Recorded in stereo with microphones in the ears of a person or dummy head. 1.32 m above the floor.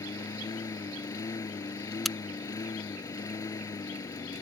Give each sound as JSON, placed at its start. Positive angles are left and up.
{"t": 0.0, "sound": "a lawn mower", "side_deg": 20}
{"t": 2.0, "sound": "a crack", "side_deg": 0}